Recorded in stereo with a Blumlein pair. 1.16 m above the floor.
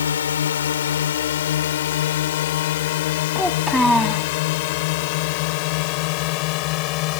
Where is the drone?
65° left; by 7.2 s 40° left.